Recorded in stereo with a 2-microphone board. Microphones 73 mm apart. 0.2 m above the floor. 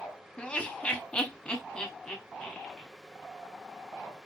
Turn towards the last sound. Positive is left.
turn(degrees=5)  # may be behind; listen again after turning